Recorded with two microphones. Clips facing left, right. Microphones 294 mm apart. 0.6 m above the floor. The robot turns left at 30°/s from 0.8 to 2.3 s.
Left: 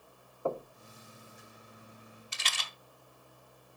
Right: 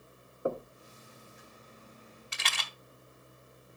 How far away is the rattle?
About 0.9 m.